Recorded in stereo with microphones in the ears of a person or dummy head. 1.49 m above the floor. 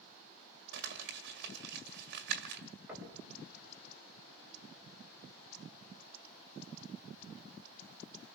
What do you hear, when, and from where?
0.7 s crumpling: 55° right (ahead or behind), 2 m
2.9 s knocking: 10° right (ahead or behind), 6.5 m